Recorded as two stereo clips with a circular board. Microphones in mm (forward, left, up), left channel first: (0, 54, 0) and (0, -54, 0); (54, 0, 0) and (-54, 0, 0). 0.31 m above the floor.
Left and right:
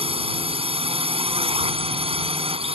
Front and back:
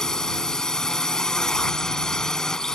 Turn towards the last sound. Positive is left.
turn(degrees=-85)